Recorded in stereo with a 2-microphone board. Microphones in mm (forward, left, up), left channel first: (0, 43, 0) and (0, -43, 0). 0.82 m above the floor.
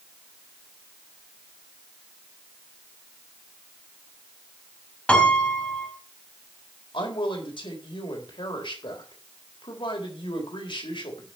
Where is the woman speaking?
75° left (ahead or behind), 4 m.